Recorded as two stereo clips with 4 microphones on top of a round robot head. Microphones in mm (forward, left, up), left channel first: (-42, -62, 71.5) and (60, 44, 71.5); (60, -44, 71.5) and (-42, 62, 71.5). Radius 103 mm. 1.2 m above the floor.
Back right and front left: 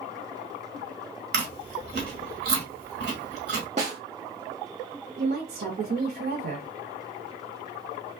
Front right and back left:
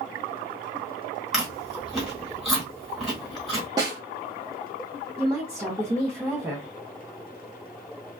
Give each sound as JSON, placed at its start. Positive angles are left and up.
{"t": 1.3, "sound": "chewing", "azimuth_deg": 45, "distance_m": 1.2}
{"t": 3.8, "sound": "a snare drum", "azimuth_deg": 80, "distance_m": 0.7}
{"t": 5.2, "sound": "a woman speaking", "azimuth_deg": 50, "distance_m": 0.8}